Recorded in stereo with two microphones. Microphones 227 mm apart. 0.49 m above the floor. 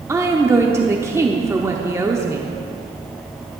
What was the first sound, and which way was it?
A woman speaking, 15° right (ahead or behind).